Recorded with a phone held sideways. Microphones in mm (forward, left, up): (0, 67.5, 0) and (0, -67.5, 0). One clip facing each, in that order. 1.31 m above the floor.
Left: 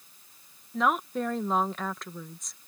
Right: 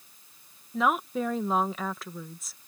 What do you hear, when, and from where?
0.7 s a woman speaking: centre (ahead or behind)